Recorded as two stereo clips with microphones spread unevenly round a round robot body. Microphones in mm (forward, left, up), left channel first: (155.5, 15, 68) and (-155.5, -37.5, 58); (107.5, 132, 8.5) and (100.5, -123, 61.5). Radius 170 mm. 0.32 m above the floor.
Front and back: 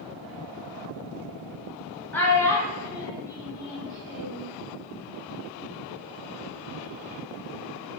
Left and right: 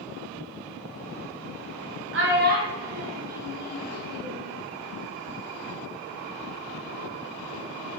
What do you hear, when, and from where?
2.1 s a child speaking: 75° right, 0.9 m; by 4.5 s 90° left, 1.2 m